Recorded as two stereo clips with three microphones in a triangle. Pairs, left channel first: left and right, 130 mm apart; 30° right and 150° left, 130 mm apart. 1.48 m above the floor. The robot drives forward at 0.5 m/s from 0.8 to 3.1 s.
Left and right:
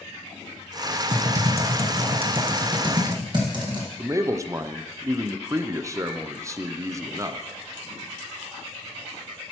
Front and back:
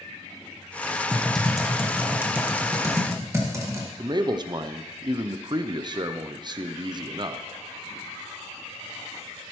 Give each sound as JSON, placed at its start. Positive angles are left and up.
{"t": 1.1, "sound": "typing on a keyboard", "azimuth_deg": -115, "distance_m": 1.2}
{"t": 4.0, "sound": "a man speaking", "azimuth_deg": -155, "distance_m": 0.5}